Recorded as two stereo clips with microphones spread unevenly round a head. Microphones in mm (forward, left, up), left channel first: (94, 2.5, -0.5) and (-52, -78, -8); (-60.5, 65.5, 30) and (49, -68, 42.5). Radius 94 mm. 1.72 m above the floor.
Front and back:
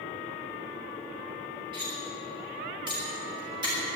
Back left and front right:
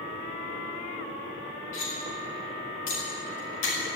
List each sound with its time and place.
1.7 s cutlery clinking: 140° left, 5 m